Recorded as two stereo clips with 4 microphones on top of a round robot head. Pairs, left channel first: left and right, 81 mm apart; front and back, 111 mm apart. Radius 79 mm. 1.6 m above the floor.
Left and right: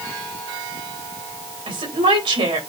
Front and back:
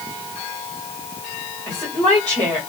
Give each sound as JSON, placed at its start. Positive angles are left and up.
{"t": 1.7, "sound": "a woman speaking", "azimuth_deg": -80, "distance_m": 4.5}